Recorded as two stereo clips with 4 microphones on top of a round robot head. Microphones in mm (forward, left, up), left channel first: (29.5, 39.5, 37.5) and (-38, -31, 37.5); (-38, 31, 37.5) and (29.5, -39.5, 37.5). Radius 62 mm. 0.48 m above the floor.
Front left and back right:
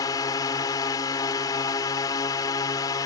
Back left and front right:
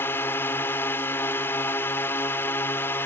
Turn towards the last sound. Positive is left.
turn(degrees=75)